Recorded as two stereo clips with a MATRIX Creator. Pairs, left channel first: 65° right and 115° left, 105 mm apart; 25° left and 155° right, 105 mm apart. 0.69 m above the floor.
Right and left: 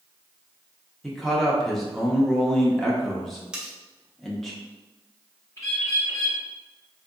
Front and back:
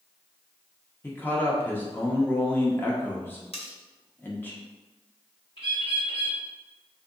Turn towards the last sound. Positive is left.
turn(degrees=-10)